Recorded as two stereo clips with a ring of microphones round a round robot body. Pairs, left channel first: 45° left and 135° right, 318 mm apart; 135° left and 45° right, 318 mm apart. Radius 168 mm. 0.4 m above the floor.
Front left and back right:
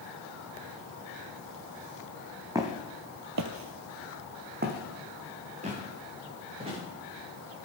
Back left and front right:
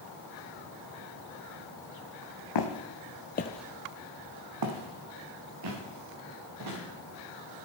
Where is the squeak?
I don't hear a squeak.